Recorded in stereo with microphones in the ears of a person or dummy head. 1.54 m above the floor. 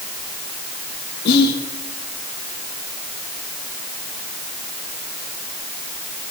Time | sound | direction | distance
1.2 | whispering | 50° left (ahead or behind) | 1.8 m